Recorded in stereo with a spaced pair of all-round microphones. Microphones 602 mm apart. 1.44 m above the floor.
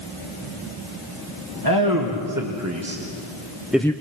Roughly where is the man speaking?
Right.